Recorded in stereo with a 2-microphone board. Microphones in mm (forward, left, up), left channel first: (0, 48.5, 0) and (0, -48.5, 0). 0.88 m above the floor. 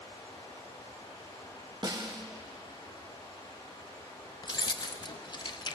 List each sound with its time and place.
0.0 s running water: 65° left (ahead or behind), 6.5 m
1.8 s a snare drum: 45° right (ahead or behind), 1.1 m
4.4 s keys jangling: 45° left (ahead or behind), 0.5 m